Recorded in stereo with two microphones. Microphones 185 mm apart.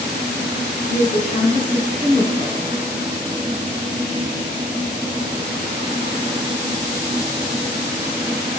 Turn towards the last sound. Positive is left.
turn(degrees=45)  # may be behind; listen again after turning